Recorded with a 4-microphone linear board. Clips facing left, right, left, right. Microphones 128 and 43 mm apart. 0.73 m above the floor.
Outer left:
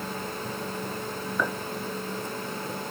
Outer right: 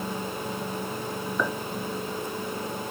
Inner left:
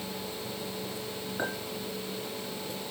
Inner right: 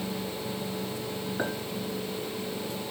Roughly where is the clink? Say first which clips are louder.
Outer right 1 dB, inner right 1 dB; centre.